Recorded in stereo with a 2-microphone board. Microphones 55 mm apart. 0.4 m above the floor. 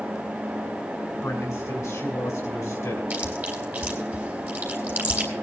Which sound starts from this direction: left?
A man speaking, at 1.2 s.